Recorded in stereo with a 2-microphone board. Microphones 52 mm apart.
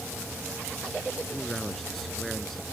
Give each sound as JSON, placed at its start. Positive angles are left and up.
{"t": 1.3, "sound": "a man speaking", "side_deg": 5}